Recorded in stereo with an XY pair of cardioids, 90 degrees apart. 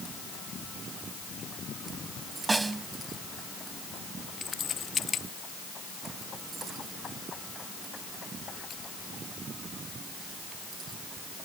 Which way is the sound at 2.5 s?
30° right.